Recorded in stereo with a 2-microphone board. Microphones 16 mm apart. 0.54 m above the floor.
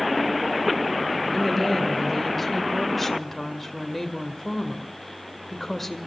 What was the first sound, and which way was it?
A woman speaking, 10° left (ahead or behind).